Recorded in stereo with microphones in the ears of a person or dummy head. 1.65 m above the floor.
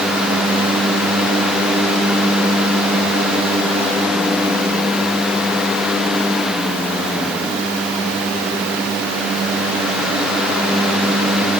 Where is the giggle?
I don't hear a giggle.